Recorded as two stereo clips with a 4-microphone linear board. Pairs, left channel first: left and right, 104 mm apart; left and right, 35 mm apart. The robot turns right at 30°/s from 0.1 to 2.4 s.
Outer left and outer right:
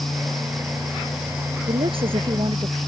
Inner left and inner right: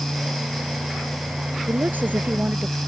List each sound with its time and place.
1.7 s a woman speaking: 70° right (ahead or behind); by 2.8 s 55° right (ahead or behind)